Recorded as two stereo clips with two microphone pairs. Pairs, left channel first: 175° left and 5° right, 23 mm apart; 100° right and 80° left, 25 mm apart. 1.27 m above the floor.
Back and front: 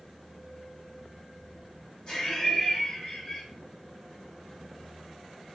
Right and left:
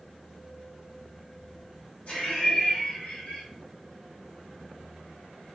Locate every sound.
2.1 s laughter: 130° right, 1.4 m